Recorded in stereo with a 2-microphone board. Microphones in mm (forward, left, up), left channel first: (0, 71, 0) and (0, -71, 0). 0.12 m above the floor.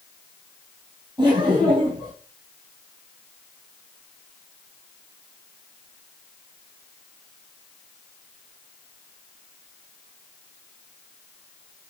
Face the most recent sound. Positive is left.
turn(degrees=-35)  # may be behind; listen again after turning